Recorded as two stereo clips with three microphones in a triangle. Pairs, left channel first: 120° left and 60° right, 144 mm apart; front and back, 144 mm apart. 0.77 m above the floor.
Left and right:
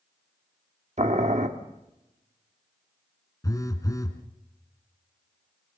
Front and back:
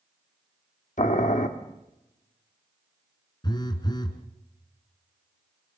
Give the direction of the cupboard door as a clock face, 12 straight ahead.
I don't hear a cupboard door.